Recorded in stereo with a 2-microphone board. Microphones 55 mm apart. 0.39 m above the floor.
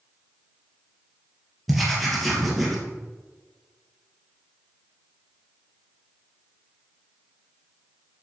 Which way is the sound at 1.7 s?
Centre (ahead or behind).